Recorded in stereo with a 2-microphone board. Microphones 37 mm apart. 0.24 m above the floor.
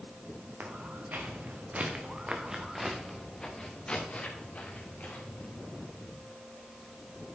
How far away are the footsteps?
About 2 m.